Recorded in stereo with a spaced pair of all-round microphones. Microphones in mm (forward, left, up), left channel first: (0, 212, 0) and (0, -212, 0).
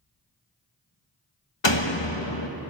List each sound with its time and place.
1.6 s a door slam: 85° left, 1.3 m